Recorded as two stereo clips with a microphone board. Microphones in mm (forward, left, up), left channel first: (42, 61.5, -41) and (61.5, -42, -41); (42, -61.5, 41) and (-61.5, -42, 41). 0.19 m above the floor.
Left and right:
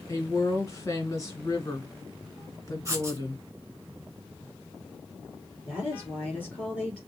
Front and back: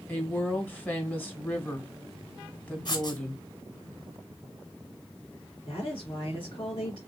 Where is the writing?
30° right, 1.7 m.